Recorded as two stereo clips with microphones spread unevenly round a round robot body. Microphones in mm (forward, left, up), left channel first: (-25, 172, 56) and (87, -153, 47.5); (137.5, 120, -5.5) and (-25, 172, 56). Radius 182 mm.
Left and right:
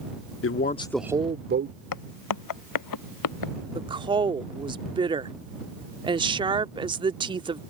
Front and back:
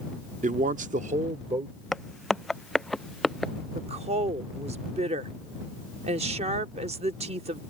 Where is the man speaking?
110° left; by 1.8 s 120° right.